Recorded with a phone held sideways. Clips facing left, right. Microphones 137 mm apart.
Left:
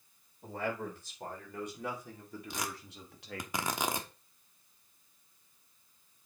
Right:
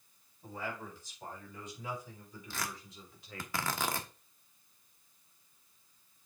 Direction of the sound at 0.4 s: 60° left (ahead or behind).